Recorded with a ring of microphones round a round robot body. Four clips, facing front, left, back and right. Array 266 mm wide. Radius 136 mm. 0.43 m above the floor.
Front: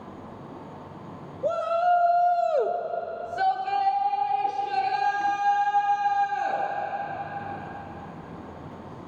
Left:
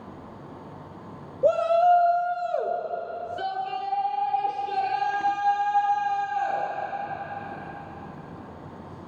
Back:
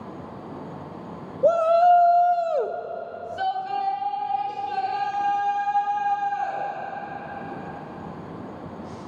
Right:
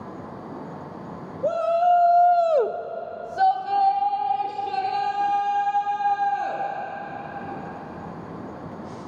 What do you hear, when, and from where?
1.4 s a shout: 150° left, 1.2 m; by 6.7 s 60° right, 6.5 m